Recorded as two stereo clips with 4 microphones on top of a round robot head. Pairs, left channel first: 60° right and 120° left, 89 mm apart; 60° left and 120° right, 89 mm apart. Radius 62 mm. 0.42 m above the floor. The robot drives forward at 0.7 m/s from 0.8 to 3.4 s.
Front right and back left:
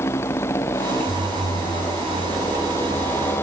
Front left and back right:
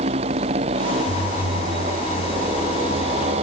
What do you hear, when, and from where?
0.0 s a motorcycle: 120° right; by 3.4 s 125° right